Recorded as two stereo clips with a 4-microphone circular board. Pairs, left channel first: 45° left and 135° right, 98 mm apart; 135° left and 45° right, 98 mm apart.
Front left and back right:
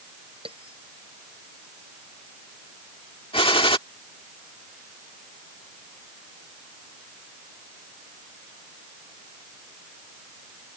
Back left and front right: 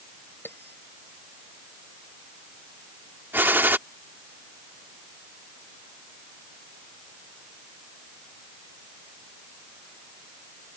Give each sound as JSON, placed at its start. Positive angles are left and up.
{"t": 0.5, "sound": "a bell", "azimuth_deg": -155}
{"t": 3.3, "sound": "a gunshot", "azimuth_deg": 25}